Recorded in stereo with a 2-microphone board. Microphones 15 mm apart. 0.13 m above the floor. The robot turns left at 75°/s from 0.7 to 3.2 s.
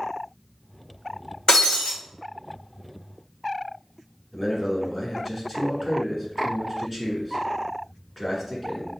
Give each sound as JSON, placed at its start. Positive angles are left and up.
{"t": 1.5, "sound": "breaking glass", "azimuth_deg": 120, "distance_m": 1.7}
{"t": 4.3, "sound": "a man speaking", "side_deg": -5, "distance_m": 1.3}